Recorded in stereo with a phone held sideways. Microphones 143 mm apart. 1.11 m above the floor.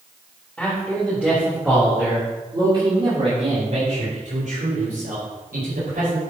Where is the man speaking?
5° left (ahead or behind), 4 m; by 6.2 s 80° right, 6 m.